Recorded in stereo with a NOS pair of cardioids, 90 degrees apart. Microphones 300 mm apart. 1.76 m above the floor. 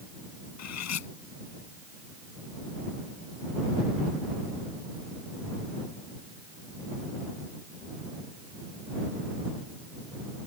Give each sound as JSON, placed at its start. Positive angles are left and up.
{"t": 0.6, "sound": "cutlery clinking", "azimuth_deg": 65}